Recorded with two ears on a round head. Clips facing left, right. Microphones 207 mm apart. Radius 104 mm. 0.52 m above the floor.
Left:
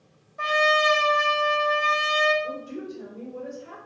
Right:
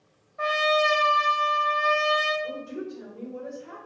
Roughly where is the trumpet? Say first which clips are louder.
Even; left.